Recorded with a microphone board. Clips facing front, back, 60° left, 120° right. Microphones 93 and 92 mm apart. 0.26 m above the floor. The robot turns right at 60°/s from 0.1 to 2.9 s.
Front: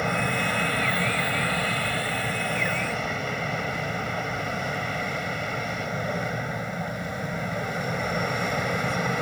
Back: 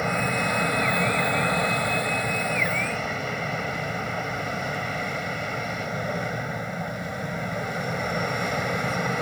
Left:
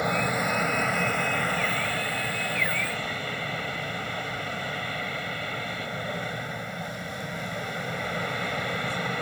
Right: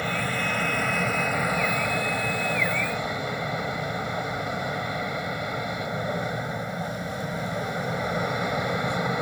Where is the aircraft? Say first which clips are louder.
Back 1 dB, left 2 dB; 100° left; by 9.2 s 95° right.